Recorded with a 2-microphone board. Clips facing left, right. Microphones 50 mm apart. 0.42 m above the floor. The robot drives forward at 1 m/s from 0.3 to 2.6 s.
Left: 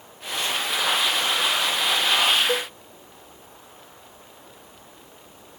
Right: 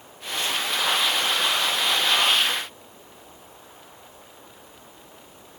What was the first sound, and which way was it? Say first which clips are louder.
A cowbell: left 4 dB; 85° left.